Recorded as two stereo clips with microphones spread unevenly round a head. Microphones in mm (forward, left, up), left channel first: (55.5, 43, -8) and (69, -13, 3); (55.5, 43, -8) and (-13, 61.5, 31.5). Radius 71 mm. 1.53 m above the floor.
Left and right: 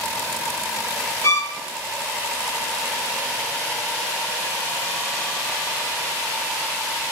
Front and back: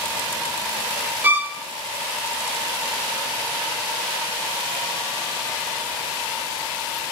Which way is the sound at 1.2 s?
160° left.